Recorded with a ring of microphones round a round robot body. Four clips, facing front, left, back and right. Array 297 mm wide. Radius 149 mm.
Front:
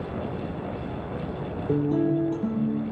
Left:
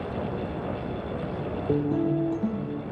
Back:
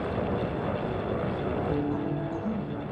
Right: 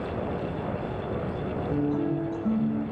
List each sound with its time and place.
1.7 s a guitar: 45° left, 8 m